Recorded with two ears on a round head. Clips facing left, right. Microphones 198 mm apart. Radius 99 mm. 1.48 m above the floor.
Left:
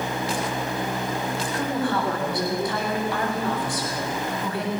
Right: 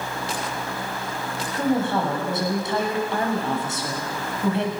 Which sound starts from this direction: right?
A woman speaking, at 1.5 s.